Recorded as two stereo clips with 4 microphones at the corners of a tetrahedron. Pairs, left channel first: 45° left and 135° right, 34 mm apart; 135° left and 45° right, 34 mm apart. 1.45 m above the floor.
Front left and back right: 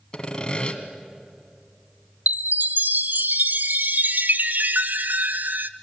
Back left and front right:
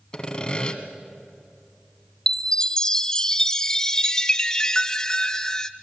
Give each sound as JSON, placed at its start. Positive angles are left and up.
{"t": 0.1, "sound": "sawing", "azimuth_deg": 90, "distance_m": 1.7}
{"t": 2.3, "sound": "a chime", "azimuth_deg": -155, "distance_m": 0.5}